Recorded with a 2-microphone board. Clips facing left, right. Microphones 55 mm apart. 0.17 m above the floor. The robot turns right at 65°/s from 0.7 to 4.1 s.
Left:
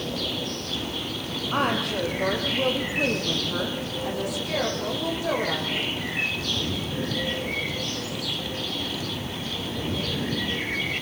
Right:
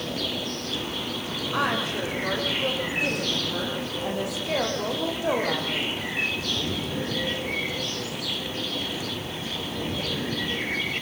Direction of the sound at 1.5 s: 40° left.